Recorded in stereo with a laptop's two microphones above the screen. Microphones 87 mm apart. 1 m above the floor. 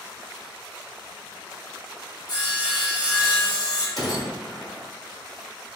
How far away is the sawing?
About 1.6 m.